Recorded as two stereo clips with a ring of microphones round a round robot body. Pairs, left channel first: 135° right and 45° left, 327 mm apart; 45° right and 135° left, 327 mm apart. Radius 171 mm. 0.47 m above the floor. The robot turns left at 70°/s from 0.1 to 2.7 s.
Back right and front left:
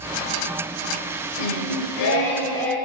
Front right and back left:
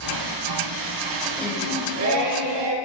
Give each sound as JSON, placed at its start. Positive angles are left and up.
{"t": 1.4, "sound": "singing", "azimuth_deg": -130, "distance_m": 0.8}